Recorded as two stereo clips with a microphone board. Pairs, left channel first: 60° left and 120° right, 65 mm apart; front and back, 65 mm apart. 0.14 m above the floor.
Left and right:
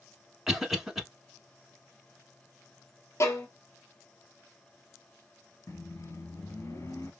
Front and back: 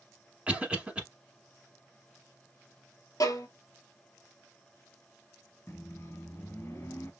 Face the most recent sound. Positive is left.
turn(degrees=35)